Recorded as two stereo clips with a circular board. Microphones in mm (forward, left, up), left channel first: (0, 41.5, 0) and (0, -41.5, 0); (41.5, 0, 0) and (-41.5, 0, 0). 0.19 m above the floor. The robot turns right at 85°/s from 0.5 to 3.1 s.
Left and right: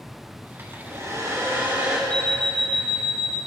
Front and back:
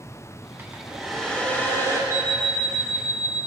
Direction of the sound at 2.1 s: 160° left.